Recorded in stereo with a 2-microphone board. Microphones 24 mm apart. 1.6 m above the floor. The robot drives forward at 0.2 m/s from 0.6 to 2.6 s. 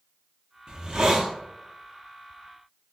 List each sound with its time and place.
0.7 s a hiss: 30° right (ahead or behind), 0.5 m